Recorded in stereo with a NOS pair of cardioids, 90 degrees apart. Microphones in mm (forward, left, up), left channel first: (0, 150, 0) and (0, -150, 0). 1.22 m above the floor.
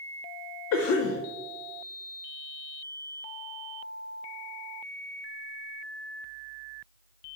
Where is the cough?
55° left, 0.5 m.